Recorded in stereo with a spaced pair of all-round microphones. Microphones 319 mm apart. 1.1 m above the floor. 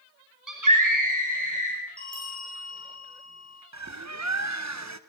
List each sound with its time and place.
0.5 s a scream: 75° right (ahead or behind), 5.5 m
2.0 s a bell: 25° left (ahead or behind), 9.5 m
3.7 s a bird: 55° right (ahead or behind), 1.0 m